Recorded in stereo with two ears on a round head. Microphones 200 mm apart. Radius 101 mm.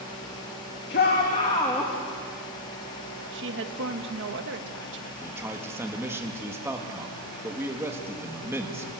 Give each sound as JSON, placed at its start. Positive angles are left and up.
{"t": 0.9, "sound": "a shout", "side_deg": 45, "distance_m": 2.0}
{"t": 3.3, "sound": "a woman speaking", "side_deg": -50, "distance_m": 1.4}
{"t": 5.2, "sound": "a man speaking", "side_deg": -10, "distance_m": 1.8}